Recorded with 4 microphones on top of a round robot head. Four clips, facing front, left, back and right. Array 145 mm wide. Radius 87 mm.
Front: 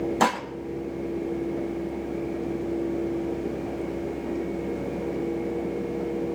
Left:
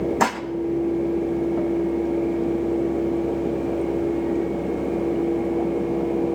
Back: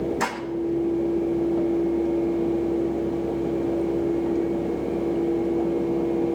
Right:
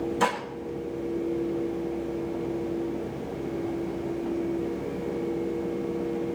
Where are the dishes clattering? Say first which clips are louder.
Left 2 dB, front 4 dB; 55° left, 1.6 m.